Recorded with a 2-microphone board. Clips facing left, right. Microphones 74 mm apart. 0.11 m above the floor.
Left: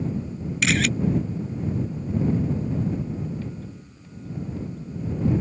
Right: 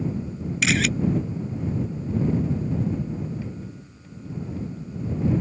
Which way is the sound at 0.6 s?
Centre (ahead or behind).